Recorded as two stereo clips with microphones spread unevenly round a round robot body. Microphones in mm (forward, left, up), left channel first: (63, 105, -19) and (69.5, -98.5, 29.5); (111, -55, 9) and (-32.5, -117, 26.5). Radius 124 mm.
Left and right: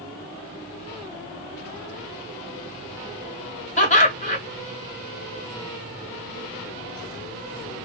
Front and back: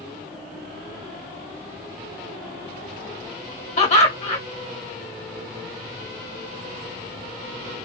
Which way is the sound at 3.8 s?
60° left.